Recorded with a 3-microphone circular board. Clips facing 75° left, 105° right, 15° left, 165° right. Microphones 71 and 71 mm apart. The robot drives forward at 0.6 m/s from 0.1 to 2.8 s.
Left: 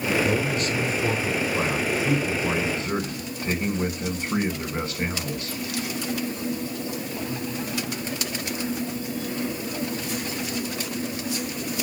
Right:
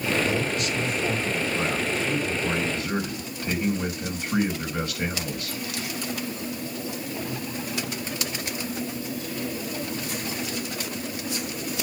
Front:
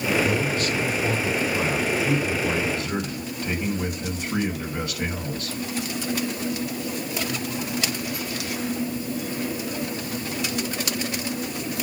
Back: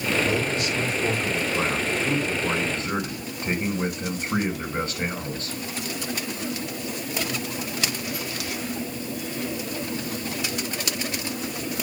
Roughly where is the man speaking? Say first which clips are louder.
Left 2 dB, front 1 dB; behind left.